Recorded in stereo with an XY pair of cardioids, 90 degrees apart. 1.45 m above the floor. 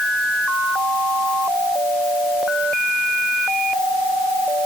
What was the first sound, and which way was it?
Only background noise.